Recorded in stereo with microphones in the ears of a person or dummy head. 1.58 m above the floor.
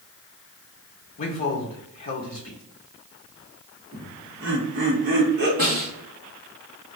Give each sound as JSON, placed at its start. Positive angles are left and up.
{"t": 1.2, "sound": "a man speaking", "side_deg": 35, "distance_m": 0.8}
{"t": 3.9, "sound": "laughter", "side_deg": -50, "distance_m": 1.0}
{"t": 5.6, "sound": "a snare drum", "side_deg": -45, "distance_m": 2.0}